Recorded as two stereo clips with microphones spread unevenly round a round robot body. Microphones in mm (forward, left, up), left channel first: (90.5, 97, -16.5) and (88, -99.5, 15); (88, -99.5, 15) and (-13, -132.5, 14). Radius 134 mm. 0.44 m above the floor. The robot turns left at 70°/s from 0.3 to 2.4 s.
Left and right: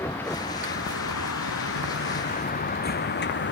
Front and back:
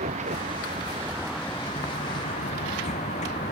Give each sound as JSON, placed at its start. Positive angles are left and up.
{"t": 0.0, "sound": "a vehicle", "azimuth_deg": 170}